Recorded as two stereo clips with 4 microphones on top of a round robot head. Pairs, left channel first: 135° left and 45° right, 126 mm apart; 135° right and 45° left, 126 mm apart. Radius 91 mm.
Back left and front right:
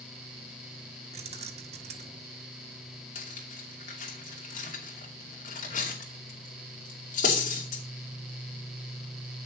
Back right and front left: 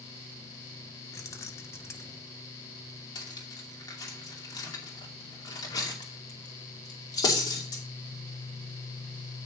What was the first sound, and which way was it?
Keys jangling, 70° right.